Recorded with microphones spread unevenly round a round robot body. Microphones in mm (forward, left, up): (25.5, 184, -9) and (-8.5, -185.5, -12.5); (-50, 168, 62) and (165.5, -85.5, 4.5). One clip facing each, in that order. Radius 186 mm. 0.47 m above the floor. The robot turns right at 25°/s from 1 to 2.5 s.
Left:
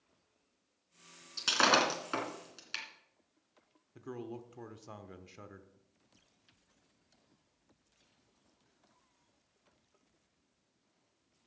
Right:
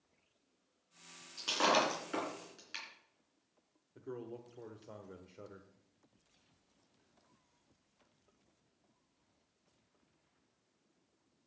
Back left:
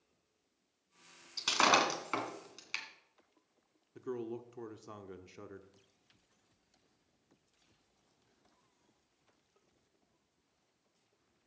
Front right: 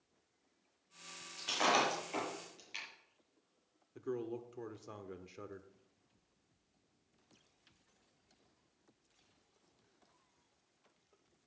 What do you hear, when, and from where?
1.4 s breaking glass: 125° left, 3 m; by 2.9 s 150° left, 3 m
4.0 s a man speaking: 40° left, 1.1 m